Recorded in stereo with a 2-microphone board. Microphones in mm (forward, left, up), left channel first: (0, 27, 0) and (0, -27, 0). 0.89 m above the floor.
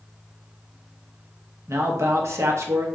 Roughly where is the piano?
I don't hear a piano.